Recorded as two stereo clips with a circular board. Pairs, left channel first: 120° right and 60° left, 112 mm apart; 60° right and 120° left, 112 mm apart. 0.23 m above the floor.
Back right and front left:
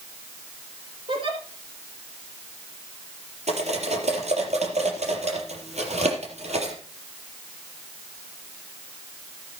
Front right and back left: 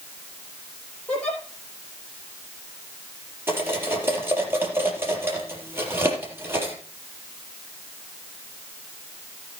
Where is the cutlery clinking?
50° left, 4 m.